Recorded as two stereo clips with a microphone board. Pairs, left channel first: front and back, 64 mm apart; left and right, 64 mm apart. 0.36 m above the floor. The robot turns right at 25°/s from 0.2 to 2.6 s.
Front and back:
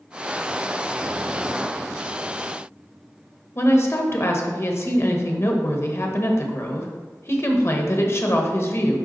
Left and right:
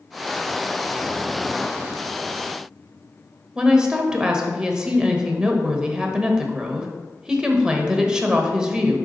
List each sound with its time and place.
3.5 s a woman speaking: 20° right, 1.1 m